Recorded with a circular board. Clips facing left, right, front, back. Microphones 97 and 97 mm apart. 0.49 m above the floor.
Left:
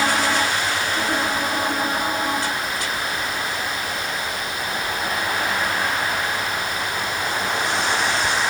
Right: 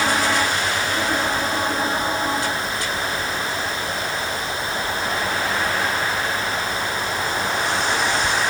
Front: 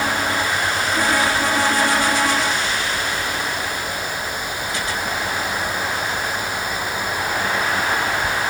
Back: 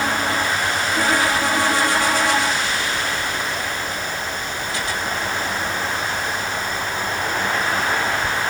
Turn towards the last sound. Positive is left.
No sound to turn to.